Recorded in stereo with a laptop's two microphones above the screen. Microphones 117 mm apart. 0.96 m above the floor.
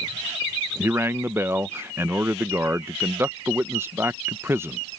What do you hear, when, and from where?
0.8 s a man speaking: 20° right (ahead or behind)